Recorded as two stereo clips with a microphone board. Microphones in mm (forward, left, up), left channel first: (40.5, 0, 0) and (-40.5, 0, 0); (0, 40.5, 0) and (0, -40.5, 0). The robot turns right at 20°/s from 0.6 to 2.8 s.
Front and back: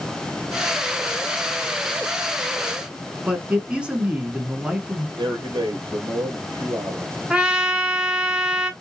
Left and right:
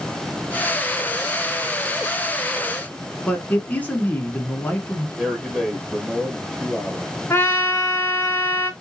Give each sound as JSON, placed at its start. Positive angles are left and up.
{"t": 3.2, "sound": "a man speaking", "azimuth_deg": 125, "distance_m": 1.2}
{"t": 5.2, "sound": "a man speaking", "azimuth_deg": -175, "distance_m": 2.5}
{"t": 7.3, "sound": "a trumpet", "azimuth_deg": 110, "distance_m": 1.4}